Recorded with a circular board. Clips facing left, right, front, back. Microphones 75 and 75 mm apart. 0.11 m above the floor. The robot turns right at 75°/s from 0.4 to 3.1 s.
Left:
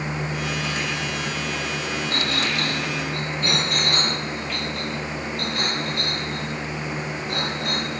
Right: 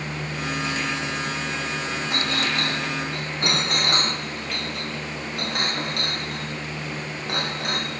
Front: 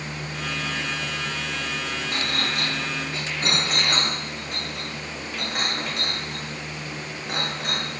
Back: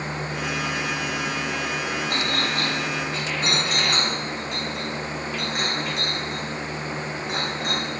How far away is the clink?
About 3 m.